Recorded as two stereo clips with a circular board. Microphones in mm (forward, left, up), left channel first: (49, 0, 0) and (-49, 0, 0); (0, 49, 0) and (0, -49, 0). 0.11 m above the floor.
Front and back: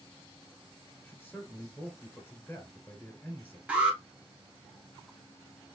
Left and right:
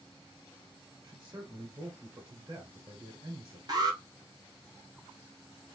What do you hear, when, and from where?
1.0 s a man speaking: 65° right, 1.3 m
3.7 s an alarm: 110° right, 1.1 m